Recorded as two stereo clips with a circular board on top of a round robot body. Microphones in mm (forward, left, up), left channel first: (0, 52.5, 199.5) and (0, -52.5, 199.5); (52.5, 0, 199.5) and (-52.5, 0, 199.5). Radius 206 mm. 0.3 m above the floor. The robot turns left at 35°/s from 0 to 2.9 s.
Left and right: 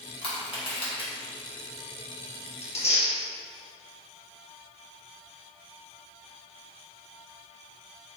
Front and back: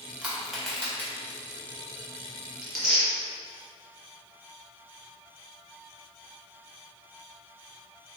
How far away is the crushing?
About 2.0 m.